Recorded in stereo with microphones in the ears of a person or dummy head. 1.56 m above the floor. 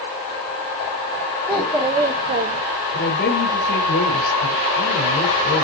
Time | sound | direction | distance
1.5 | a child speaking | 5° right (ahead or behind) | 1.4 m
2.9 | a woman speaking | 65° left (ahead or behind) | 6 m